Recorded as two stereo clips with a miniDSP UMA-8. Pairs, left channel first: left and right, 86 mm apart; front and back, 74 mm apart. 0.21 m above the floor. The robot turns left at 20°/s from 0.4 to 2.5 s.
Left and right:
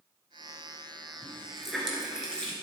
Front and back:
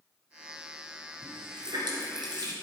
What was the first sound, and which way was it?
A running tap, 170° right.